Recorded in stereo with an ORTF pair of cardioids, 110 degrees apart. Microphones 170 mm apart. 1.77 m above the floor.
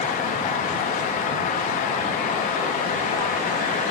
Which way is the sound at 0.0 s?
50° left.